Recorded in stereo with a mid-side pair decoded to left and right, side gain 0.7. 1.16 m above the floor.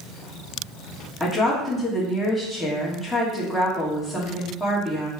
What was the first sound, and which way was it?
A woman speaking, 10° left.